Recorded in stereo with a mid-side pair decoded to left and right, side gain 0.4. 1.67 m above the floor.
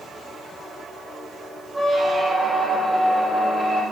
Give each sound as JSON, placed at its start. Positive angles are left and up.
{"t": 1.7, "sound": "a squeak", "azimuth_deg": -15, "distance_m": 4.0}